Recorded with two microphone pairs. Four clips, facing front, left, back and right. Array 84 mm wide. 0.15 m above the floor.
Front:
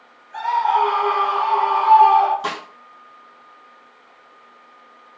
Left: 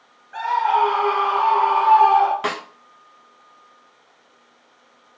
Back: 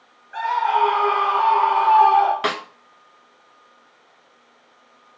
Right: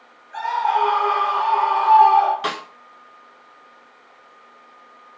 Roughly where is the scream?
Behind.